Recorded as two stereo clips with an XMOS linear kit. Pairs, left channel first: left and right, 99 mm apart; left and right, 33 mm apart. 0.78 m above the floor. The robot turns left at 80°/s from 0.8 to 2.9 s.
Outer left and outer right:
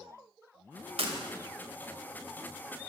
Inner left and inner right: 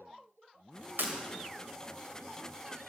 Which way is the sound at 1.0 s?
85° right.